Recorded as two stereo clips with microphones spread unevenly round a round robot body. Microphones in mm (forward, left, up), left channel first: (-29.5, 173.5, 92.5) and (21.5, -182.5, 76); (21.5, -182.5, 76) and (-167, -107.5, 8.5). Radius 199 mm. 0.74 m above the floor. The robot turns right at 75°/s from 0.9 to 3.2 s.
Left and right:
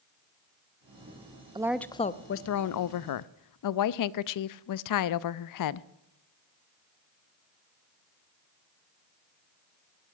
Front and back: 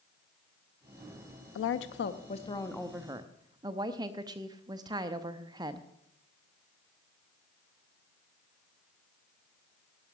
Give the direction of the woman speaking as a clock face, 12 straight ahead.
12 o'clock.